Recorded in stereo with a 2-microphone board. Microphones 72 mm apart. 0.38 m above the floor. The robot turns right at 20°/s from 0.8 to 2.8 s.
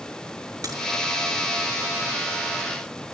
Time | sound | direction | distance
0.6 | a crack | 55° right (ahead or behind) | 6.5 m